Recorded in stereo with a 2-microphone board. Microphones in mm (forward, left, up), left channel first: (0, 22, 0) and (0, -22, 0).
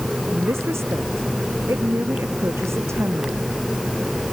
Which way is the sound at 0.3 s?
80° right.